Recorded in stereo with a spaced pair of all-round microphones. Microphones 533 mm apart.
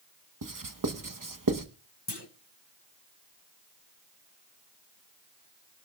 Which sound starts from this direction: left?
A clunk, at 2.1 s.